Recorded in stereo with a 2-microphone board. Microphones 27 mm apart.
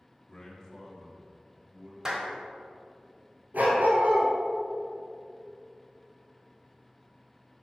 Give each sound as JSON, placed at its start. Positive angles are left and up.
{"t": 0.3, "sound": "a man speaking", "side_deg": 35, "distance_m": 1.2}
{"t": 2.0, "sound": "a clap", "side_deg": -20, "distance_m": 1.0}
{"t": 3.5, "sound": "a dog barking", "side_deg": -80, "distance_m": 1.6}